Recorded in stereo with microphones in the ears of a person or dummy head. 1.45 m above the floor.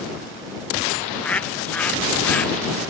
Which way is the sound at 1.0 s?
5° left (ahead or behind).